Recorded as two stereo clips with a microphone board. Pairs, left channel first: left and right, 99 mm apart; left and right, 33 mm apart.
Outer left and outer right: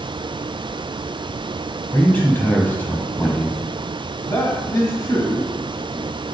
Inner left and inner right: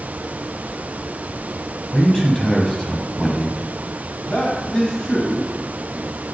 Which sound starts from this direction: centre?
A man speaking, at 1.9 s.